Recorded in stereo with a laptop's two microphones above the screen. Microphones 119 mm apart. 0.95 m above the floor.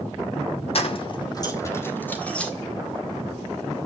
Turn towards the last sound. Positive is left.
turn(degrees=10)  # may be behind; listen again after turning